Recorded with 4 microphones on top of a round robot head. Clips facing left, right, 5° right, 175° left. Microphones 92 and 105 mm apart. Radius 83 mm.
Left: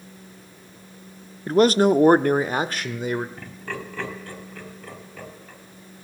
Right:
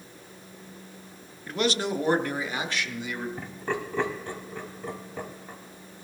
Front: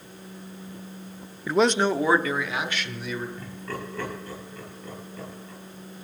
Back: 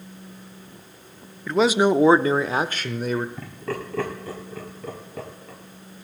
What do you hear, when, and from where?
1.5 s a man speaking: 75° left, 0.7 m; by 3.3 s 135° left, 1.7 m
3.4 s laughter: 160° right, 4.5 m